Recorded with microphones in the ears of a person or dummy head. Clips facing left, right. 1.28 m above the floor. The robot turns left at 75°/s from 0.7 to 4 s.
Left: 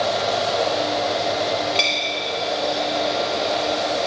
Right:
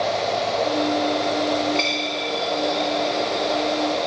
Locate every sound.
1.8 s a dropped coin: 20° left (ahead or behind), 0.8 m; by 4.1 s 30° right (ahead or behind), 0.8 m